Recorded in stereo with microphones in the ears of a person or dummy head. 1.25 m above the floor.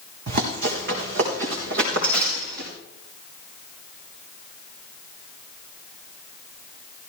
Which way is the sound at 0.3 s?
45° right (ahead or behind).